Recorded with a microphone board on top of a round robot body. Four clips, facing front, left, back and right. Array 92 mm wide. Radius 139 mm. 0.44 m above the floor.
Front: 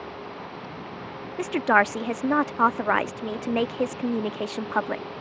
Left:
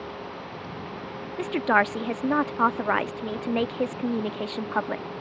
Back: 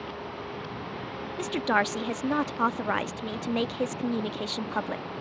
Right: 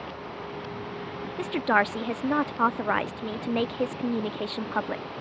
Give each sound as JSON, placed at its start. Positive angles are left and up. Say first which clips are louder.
{"t": 1.4, "sound": "a woman speaking", "louder": "left 2 dB, front 5 dB", "azimuth_deg": 15}